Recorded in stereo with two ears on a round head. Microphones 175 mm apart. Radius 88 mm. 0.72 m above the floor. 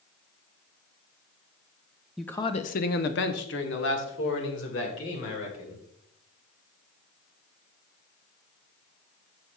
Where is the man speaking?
Centre (ahead or behind), 0.5 m; by 5.8 s 65° left (ahead or behind), 3.5 m.